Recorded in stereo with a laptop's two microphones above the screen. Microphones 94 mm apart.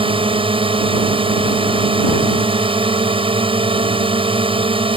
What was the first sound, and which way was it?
A drone, 80° right.